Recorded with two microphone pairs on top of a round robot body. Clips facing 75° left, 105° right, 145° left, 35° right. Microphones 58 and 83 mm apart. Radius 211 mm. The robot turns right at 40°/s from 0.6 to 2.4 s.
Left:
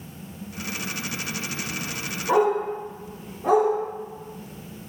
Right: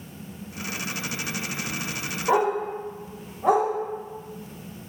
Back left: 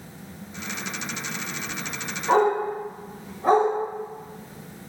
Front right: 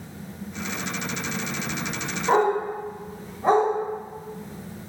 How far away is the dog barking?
About 1.8 m.